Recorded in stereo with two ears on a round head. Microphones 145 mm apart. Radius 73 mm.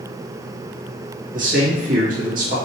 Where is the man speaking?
55° right (ahead or behind), 1.8 m.